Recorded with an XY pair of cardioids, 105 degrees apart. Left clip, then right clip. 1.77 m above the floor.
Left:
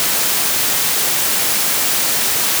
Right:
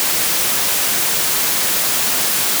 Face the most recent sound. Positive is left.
No sound to turn to.